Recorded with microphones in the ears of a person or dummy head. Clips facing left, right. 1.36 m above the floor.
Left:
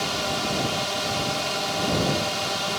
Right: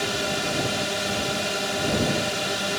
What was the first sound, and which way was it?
A drone, 30° right (ahead or behind).